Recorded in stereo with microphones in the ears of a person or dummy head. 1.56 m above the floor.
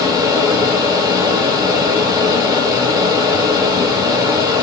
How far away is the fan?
About 0.9 m.